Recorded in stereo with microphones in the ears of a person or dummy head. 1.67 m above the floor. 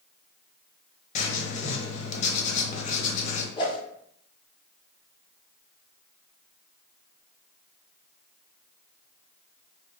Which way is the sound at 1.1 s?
40° left (ahead or behind).